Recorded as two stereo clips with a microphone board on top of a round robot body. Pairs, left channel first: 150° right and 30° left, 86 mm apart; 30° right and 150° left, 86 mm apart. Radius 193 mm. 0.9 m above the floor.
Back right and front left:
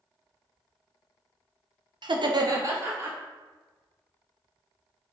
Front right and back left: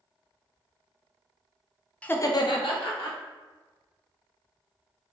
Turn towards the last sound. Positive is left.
turn(degrees=-35)